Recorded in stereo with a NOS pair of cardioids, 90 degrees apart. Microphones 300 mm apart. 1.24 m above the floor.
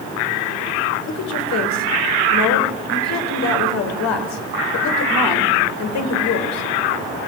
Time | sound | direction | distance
1.1 | a woman speaking | 65° left | 4.5 m